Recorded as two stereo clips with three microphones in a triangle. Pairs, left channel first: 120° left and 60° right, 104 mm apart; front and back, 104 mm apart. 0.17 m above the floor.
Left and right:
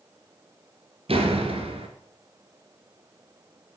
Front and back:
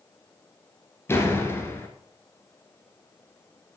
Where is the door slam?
65° right, 1.6 m.